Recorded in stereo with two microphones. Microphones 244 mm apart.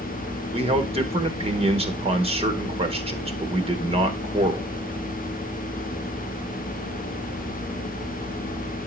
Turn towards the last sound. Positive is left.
turn(degrees=-25)  # may be behind; listen again after turning